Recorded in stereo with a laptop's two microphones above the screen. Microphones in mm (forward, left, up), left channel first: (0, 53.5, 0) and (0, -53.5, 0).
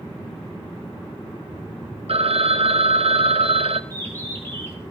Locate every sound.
2.1 s a phone ringing: 65° right (ahead or behind), 0.8 m
3.9 s a bird: 20° left (ahead or behind), 5 m